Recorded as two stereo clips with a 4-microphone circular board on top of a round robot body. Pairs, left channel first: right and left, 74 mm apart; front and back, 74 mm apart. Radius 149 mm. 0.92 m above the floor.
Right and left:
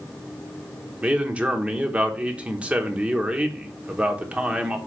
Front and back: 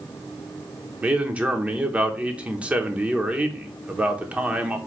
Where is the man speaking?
135° left, 0.9 m.